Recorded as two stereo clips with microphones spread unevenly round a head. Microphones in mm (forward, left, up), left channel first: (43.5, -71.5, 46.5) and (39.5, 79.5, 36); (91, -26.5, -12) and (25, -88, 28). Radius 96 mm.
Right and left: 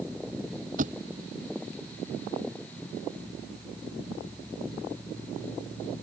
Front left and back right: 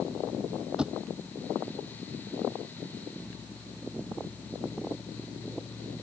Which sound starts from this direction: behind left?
A thud, at 0.8 s.